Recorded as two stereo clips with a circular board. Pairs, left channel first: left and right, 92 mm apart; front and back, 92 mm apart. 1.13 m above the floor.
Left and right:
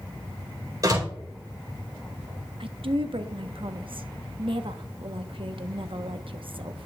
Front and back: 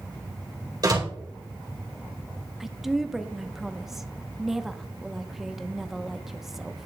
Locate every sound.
0.8 s a door slam: 140° right, 4 m
2.6 s a woman speaking: 95° right, 0.9 m